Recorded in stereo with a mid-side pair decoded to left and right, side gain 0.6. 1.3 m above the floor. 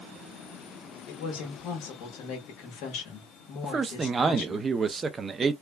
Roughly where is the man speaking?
Ahead right.